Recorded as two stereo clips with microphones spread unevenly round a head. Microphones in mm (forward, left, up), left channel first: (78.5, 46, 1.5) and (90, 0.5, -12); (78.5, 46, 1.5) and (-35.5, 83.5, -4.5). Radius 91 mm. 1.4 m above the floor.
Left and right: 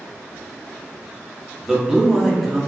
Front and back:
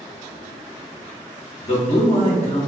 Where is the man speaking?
10° left, 1.0 m.